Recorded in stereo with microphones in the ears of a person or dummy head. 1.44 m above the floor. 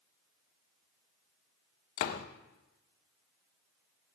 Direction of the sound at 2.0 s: 45° left (ahead or behind).